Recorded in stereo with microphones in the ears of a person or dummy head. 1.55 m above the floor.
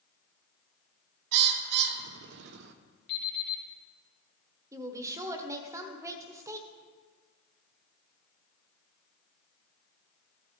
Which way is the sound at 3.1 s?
60° left (ahead or behind).